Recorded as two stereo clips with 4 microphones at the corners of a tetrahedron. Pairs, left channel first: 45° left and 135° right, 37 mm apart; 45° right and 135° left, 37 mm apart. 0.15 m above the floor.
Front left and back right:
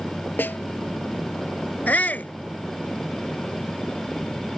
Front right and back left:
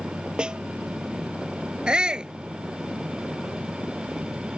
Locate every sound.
0.4 s a snare drum: 70° left
1.9 s a shout: 75° left